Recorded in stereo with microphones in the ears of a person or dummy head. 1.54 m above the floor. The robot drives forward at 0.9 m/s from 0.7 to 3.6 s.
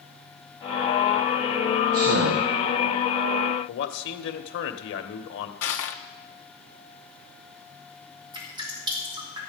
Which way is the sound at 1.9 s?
80° right.